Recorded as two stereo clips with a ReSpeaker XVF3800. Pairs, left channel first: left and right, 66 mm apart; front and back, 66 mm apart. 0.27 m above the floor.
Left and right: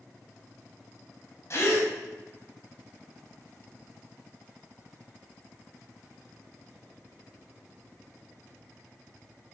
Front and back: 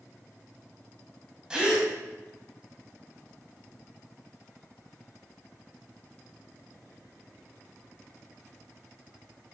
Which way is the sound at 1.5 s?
105° left.